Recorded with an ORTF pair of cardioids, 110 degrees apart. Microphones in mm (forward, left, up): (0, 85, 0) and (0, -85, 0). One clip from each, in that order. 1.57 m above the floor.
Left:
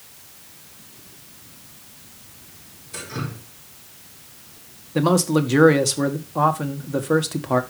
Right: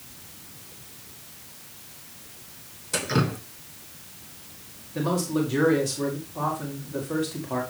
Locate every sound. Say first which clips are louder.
2.9 s dripping: right 6 dB; 70° right, 2.5 m
5.0 s a man speaking: left 7 dB; 60° left, 1.9 m